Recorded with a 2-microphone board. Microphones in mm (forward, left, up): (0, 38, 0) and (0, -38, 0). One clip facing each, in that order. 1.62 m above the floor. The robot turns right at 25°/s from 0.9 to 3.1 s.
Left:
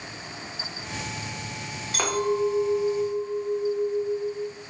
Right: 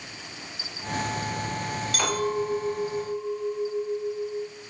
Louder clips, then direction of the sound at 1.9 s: Left 3 dB; 25° left (ahead or behind).